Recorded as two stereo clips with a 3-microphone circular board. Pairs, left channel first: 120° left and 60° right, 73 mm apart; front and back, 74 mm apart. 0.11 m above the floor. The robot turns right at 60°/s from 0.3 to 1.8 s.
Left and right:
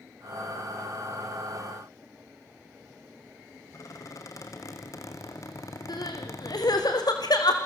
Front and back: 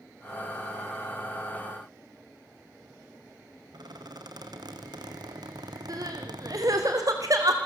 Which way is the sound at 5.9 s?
145° left.